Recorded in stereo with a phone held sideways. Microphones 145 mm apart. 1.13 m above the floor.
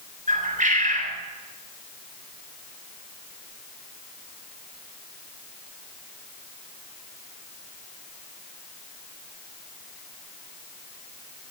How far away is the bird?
About 3.5 m.